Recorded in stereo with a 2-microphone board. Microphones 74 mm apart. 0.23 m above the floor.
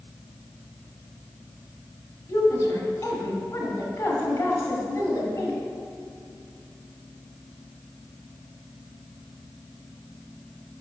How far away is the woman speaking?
About 1.3 m.